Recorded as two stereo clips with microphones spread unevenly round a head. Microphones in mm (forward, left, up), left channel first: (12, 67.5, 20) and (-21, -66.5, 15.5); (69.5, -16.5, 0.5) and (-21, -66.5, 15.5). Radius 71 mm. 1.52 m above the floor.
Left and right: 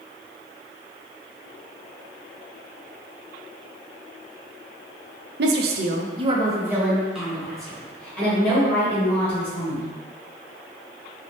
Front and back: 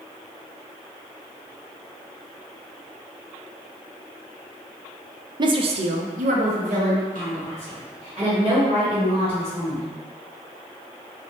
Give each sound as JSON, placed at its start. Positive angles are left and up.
{"t": 5.4, "sound": "a woman speaking", "azimuth_deg": -100, "distance_m": 0.6}